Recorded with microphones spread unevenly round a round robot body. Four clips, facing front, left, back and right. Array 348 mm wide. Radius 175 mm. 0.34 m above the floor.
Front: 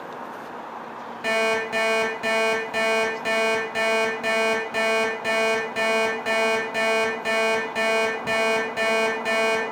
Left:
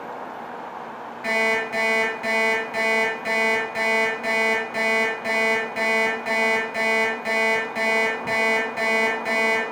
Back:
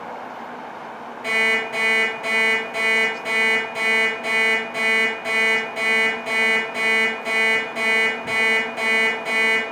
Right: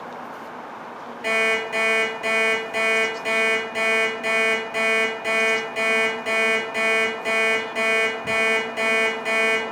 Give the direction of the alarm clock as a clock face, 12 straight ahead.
1 o'clock.